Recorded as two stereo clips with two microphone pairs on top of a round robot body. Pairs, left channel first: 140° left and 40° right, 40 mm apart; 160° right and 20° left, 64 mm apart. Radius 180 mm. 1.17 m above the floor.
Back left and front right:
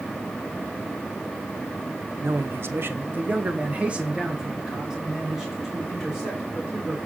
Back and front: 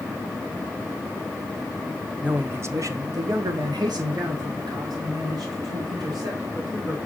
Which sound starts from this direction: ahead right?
A man speaking, at 2.2 s.